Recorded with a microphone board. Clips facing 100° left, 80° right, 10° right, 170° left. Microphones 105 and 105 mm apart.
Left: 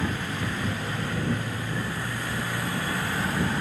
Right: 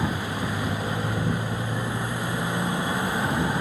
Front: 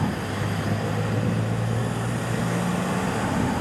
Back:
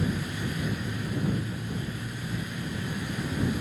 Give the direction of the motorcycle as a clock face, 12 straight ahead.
12 o'clock.